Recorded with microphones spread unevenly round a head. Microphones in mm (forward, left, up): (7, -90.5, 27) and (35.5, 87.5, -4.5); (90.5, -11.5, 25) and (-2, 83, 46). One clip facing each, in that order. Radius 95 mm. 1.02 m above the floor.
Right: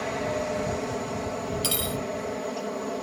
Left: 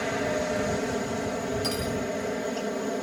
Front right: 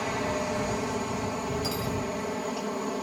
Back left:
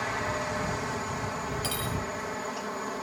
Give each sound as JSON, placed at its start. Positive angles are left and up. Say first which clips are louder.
{"t": 0.0, "sound": "a helicopter", "louder": "left 1 dB, front right 3 dB", "azimuth_deg": 10}
{"t": 1.6, "sound": "cutlery clinking", "louder": "left 2 dB, front right 3 dB", "azimuth_deg": -150}